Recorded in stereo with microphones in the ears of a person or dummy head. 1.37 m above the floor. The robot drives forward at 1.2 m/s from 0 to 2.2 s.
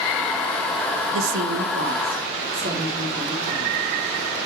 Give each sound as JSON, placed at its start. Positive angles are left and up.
{"t": 1.1, "sound": "a woman speaking", "side_deg": -80, "distance_m": 0.8}